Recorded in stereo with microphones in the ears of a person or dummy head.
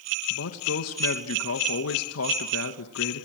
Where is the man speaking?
80° left, 1.7 m.